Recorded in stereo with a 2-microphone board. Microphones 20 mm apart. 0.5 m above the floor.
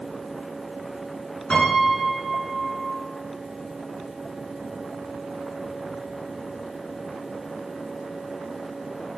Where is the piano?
55° left (ahead or behind), 3.5 m.